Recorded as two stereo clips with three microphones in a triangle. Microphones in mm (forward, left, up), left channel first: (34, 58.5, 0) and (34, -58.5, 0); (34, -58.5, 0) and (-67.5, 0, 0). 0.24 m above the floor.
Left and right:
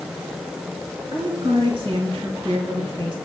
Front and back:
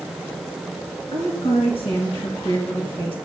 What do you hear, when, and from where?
1.1 s a woman speaking: 55° right, 3 m